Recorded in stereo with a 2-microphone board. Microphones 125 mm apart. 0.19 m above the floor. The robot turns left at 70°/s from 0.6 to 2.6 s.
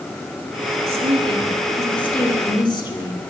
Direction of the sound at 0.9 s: 110° right.